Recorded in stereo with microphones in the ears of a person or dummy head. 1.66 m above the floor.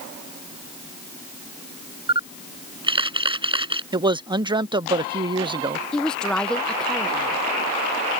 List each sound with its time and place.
2.1 s a camera shutter: 30° right (ahead or behind)
3.9 s a man speaking: 30° right (ahead or behind)
5.9 s a woman speaking: 10° left (ahead or behind)